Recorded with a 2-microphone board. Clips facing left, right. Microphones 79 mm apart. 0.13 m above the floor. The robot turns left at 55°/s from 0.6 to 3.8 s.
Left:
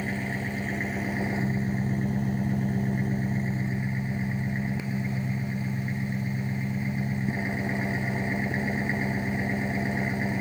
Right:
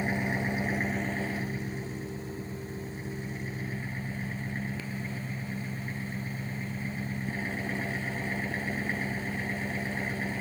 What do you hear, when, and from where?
0.0 s an engine running: 165° right, 0.7 m; by 10.4 s 20° left, 0.7 m